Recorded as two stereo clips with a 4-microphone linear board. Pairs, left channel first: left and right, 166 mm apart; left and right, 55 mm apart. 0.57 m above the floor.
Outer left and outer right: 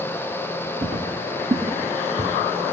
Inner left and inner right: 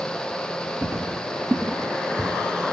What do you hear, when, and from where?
0.8 s footsteps: 55° right (ahead or behind), 2 m; by 2.3 s 20° right (ahead or behind), 1.5 m